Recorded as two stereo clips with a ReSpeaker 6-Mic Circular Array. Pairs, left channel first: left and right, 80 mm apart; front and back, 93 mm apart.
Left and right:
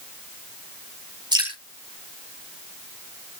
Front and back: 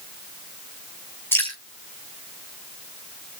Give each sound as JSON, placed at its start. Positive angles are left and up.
{"t": 1.3, "sound": "dripping", "azimuth_deg": -65, "distance_m": 6.0}